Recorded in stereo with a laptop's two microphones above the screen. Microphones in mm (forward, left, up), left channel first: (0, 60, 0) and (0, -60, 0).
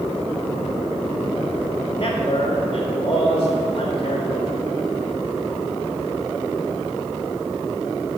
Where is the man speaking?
50° left (ahead or behind), 2.5 m.